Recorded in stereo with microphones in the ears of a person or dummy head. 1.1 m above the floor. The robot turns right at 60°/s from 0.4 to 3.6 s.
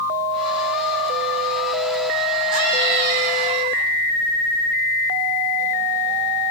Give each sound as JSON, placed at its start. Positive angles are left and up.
{"t": 2.5, "sound": "a scream", "azimuth_deg": -105, "distance_m": 8.5}